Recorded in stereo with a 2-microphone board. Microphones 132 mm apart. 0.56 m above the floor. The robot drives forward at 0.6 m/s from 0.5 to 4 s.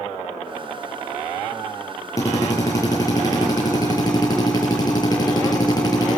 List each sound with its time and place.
2.2 s a drill: 25° left (ahead or behind), 7 m; by 6.2 s 30° left (ahead or behind), 6 m